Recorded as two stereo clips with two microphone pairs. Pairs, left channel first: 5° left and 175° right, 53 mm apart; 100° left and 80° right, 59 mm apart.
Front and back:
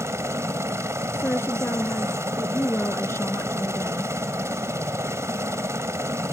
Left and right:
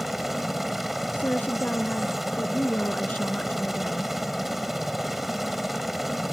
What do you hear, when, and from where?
0.0 s a helicopter: 165° right
1.1 s a woman speaking: 45° left